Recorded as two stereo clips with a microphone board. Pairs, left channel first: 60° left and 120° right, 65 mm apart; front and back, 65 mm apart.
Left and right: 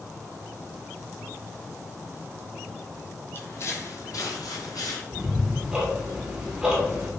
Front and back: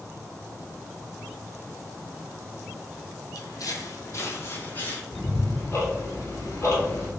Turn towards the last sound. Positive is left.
turn(degrees=-45)